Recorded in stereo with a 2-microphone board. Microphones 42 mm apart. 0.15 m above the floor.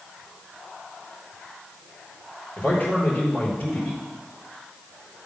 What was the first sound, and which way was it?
A man speaking, 50° left (ahead or behind).